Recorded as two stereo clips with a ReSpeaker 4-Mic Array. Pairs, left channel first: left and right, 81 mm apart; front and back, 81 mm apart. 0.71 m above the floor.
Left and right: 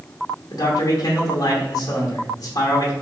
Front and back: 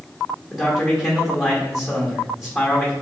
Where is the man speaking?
95° left, 1.1 m.